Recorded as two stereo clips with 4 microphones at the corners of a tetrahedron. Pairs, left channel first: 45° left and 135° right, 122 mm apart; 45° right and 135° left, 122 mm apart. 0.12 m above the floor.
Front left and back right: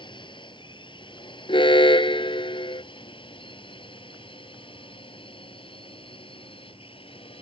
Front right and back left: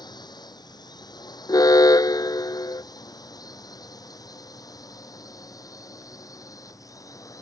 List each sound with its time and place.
0.0 s a drone: 5° left; by 7.4 s 15° left
1.5 s an alarm: 10° left